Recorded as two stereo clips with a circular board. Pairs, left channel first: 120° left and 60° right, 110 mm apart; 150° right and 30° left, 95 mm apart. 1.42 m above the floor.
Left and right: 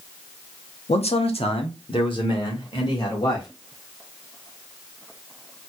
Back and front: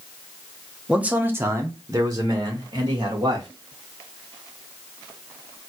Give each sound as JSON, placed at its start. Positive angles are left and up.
{"t": 0.9, "sound": "a man speaking", "azimuth_deg": 110, "distance_m": 0.7}